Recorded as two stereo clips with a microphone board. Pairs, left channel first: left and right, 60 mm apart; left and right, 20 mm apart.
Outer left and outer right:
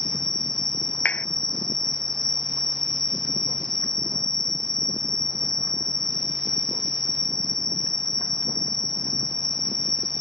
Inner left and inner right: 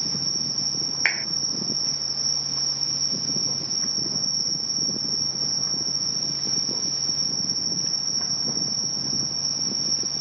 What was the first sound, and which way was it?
An insect, 5° left (ahead or behind).